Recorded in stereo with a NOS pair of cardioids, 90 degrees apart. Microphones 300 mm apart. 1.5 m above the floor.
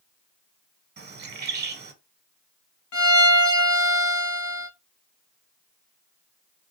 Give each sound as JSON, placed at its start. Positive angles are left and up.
{"t": 1.0, "sound": "a bird", "azimuth_deg": -35, "distance_m": 1.1}
{"t": 2.9, "sound": "a violin", "azimuth_deg": 70, "distance_m": 2.0}